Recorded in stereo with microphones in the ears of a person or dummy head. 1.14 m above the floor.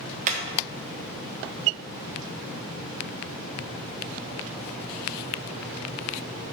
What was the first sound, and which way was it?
Hammering, 40° right (ahead or behind).